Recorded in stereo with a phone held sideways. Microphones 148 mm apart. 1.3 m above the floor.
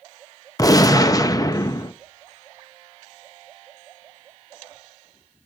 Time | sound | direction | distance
0.6 | a gunshot | 25° left (ahead or behind) | 0.6 m